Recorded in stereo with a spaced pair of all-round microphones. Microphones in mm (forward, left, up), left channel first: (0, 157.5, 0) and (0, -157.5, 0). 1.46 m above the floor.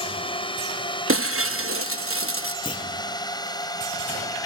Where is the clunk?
15° left (ahead or behind).